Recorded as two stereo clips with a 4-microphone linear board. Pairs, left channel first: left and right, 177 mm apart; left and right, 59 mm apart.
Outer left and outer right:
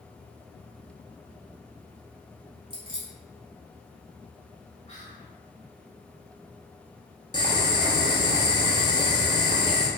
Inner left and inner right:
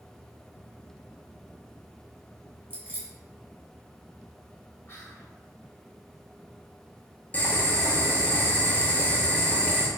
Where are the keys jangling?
25° right (ahead or behind), 0.8 m.